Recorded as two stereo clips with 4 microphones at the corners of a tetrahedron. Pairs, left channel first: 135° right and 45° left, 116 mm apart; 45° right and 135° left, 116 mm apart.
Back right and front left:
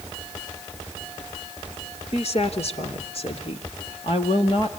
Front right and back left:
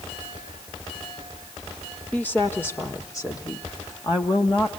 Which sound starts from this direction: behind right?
A woman speaking, at 2.1 s.